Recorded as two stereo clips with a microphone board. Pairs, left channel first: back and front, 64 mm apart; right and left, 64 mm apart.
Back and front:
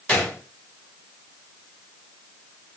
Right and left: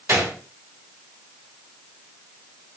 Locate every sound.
0.1 s a gunshot: 115° left, 1.2 m